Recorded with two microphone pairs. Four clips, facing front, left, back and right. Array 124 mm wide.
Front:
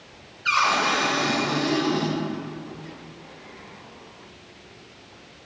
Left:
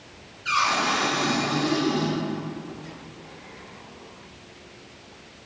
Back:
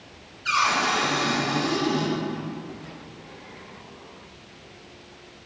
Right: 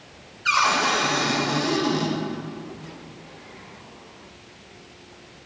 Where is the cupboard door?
65° right, 2.5 m.